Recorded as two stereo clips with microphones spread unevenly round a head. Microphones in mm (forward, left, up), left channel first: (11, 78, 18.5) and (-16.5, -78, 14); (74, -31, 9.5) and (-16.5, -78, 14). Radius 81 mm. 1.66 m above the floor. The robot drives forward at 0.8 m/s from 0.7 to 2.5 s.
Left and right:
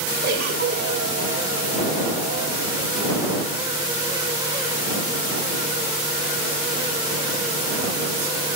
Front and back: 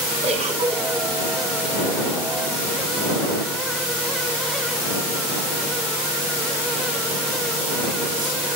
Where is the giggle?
135° right, 8 m.